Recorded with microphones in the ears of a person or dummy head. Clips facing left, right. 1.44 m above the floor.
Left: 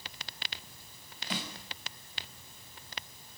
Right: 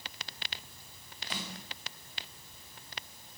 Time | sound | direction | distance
1.3 | a snare drum | 60° left (ahead or behind) | 6 m